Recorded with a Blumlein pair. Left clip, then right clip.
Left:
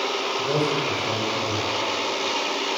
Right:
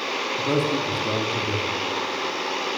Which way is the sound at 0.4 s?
50° right.